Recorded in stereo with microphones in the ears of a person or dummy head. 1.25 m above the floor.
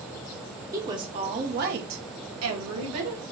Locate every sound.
0.7 s a woman speaking: 15° right (ahead or behind), 0.9 m; by 3.2 s 70° right (ahead or behind), 1.1 m